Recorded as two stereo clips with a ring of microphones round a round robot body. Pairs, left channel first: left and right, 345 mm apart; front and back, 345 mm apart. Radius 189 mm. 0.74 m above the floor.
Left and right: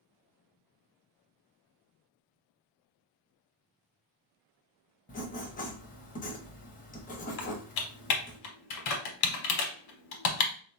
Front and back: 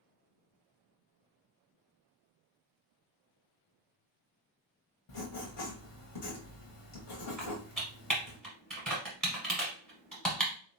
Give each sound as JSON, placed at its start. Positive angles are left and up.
{"t": 5.1, "sound": "writing", "azimuth_deg": 25, "distance_m": 0.8}
{"t": 7.4, "sound": "typing on a keyboard", "azimuth_deg": 90, "distance_m": 0.8}